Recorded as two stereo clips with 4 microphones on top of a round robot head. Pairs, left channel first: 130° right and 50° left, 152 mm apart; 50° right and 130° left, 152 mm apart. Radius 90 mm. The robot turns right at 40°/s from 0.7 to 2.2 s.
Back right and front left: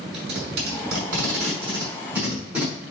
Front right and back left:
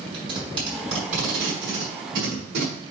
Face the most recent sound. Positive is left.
turn(degrees=130)